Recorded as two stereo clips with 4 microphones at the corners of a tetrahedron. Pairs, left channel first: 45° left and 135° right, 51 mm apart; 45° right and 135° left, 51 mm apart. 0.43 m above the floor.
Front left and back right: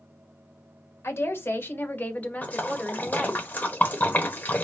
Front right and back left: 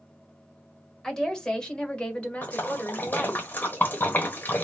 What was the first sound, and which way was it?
A woman speaking, 30° left.